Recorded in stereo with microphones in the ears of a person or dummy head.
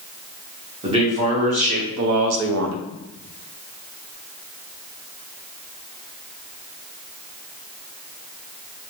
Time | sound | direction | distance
0.8 | a man speaking | 25° right (ahead or behind) | 1.1 m